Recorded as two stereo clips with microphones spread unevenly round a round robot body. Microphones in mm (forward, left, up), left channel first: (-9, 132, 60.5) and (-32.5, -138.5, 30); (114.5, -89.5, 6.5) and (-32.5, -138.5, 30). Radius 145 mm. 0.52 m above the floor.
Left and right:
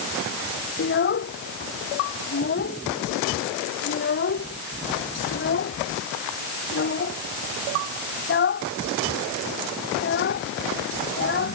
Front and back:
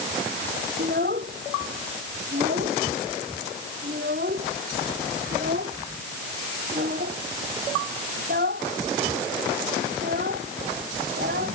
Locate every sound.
0.8 s a child speaking: 135° left